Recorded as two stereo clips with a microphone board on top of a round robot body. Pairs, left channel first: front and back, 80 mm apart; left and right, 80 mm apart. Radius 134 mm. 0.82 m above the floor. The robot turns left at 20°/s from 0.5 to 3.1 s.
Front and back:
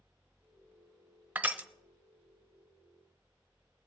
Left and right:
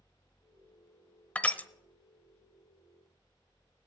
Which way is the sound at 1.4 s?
140° left.